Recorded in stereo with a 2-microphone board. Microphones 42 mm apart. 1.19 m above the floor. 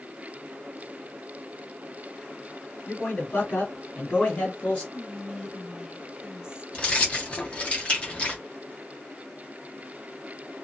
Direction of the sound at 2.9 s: 65° left (ahead or behind).